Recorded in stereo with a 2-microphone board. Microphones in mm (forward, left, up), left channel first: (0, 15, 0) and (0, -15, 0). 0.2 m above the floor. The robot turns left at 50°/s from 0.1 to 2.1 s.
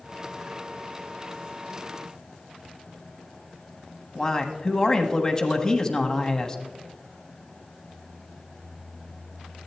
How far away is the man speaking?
About 1.0 m.